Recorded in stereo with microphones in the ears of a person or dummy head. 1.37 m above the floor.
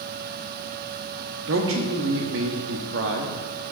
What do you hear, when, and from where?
1.5 s a man speaking: 60° right (ahead or behind), 0.8 m